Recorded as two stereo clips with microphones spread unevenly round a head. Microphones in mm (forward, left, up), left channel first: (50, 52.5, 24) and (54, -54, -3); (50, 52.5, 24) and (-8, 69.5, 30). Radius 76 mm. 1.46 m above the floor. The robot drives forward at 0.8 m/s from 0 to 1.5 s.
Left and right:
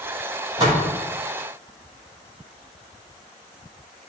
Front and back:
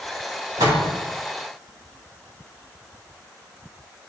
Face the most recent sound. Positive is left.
turn(degrees=-165)